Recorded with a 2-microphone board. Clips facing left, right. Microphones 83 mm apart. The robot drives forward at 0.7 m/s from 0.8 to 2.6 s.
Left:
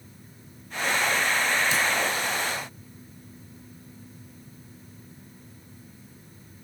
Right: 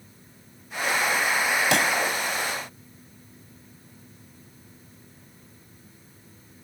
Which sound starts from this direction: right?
A pop, at 1.7 s.